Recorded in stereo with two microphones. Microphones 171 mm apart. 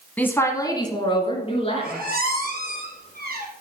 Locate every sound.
0.2 s a woman speaking: 10° left (ahead or behind), 1.1 m; by 2.0 s 40° left (ahead or behind), 2.5 m
1.8 s a squeak: 70° right (ahead or behind), 2.5 m